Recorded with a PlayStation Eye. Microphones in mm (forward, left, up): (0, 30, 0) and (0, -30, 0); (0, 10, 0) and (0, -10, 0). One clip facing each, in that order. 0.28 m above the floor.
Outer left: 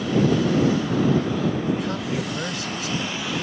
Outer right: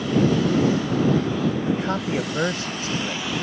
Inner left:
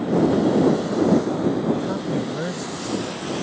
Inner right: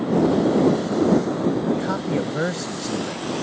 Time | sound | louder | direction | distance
1.7 | a man speaking | outer right 1 dB, even | 35° right (ahead or behind) | ?